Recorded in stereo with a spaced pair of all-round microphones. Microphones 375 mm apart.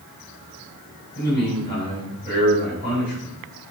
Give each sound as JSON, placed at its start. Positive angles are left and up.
{"t": 1.1, "sound": "a man speaking", "side_deg": 25, "distance_m": 5.0}